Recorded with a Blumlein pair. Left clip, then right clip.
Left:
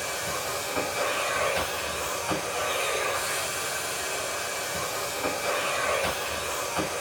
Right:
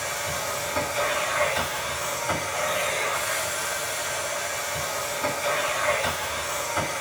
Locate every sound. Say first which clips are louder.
0.0 s a machine running: right 2 dB; straight ahead, 4 m